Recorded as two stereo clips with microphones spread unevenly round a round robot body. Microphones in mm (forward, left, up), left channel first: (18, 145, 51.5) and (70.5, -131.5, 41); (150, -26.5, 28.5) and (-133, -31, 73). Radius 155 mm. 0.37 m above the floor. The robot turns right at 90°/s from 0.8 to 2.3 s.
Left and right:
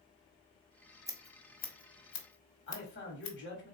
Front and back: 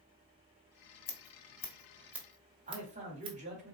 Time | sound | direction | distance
1.1 | scissors | 5° right | 1.1 m
2.7 | a man speaking | 120° left | 1.8 m